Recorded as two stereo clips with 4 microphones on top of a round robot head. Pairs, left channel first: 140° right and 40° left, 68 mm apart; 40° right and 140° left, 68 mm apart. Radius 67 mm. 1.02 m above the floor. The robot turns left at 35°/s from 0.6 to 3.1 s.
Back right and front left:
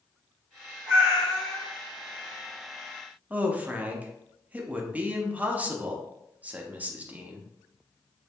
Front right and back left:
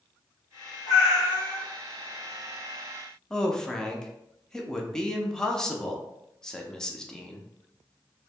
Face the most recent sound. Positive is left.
turn(degrees=30)